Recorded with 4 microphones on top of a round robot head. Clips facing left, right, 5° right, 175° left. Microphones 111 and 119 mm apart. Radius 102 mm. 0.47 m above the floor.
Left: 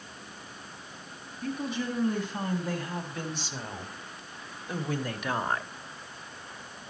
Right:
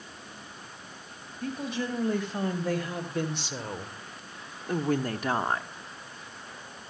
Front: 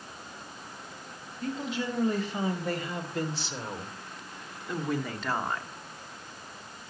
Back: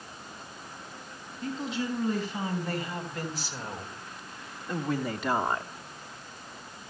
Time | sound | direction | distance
1.4 | a woman speaking | 55° right | 4 m